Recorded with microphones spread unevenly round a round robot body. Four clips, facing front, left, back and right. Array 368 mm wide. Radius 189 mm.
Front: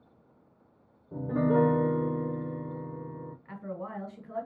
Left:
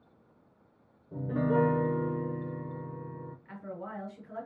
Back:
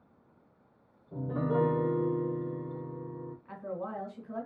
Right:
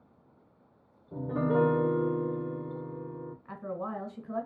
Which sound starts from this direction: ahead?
A piano, at 1.1 s.